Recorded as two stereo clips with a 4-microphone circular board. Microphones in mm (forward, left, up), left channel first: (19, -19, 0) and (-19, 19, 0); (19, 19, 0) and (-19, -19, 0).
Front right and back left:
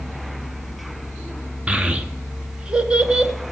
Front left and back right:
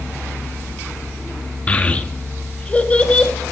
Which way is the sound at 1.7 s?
80° left.